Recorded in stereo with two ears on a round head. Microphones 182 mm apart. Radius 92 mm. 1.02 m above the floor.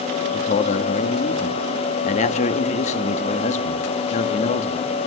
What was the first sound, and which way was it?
A man speaking, 35° left (ahead or behind).